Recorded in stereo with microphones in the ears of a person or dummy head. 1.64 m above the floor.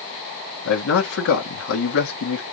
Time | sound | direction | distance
0.7 | a man speaking | 75° left (ahead or behind) | 1.4 m